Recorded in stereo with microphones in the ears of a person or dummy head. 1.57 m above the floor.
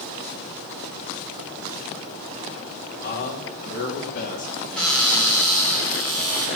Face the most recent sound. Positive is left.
turn(degrees=5)  # may be behind; listen again after turning